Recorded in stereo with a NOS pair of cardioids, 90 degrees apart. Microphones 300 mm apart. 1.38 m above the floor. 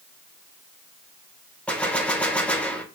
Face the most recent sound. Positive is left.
turn(degrees=5)